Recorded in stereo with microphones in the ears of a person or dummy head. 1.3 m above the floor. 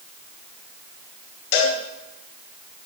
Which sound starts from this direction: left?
A cowbell, at 1.5 s.